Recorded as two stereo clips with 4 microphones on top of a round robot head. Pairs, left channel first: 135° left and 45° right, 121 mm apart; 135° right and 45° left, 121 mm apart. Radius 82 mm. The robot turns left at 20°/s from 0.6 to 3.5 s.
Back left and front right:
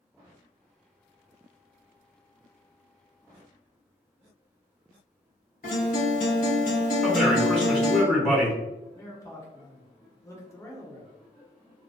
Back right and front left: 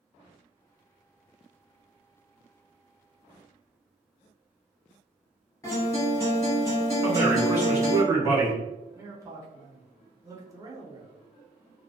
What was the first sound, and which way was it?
A guitar, 155° left.